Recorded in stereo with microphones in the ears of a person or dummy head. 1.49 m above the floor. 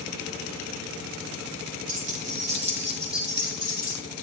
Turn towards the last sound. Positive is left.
turn(degrees=-20)  # may be behind; listen again after turning